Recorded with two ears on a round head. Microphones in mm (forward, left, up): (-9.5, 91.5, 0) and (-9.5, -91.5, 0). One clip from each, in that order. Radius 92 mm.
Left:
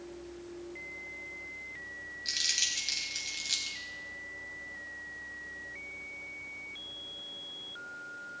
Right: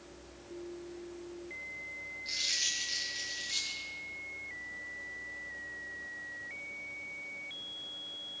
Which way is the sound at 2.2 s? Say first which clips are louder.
Left 2 dB; 55° left (ahead or behind).